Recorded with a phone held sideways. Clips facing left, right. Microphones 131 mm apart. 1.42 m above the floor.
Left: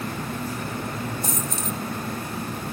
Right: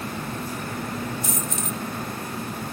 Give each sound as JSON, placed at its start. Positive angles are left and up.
{"t": 1.2, "sound": "a dropped coin", "side_deg": 35, "distance_m": 1.1}